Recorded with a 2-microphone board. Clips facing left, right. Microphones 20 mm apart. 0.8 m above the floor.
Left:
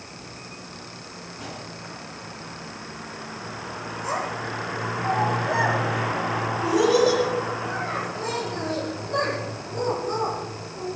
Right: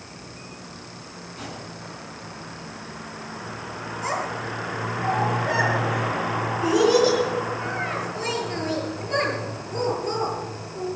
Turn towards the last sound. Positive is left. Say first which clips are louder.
# right 1 dB
turn(degrees=-70)  # may be behind; listen again after turning